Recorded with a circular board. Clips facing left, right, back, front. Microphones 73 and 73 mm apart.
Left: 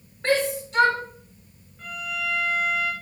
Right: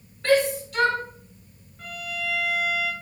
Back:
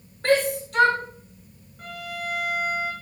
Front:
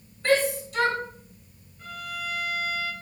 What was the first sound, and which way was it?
A shout, 150° left.